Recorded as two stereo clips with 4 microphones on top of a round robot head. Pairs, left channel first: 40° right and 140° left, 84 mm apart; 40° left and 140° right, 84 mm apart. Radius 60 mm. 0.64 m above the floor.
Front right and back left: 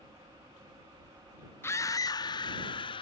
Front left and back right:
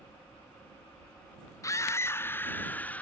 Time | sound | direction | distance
1.6 | a scream | 10° left | ?